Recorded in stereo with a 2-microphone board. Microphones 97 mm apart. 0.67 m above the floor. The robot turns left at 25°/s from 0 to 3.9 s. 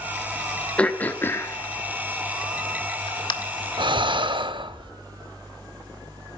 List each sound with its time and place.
0.8 s throat clearing: 15° left (ahead or behind), 1.1 m; by 3.3 s 55° left (ahead or behind), 1.1 m
3.8 s breathing: 50° right (ahead or behind), 0.7 m; by 4.9 s 55° right (ahead or behind), 0.7 m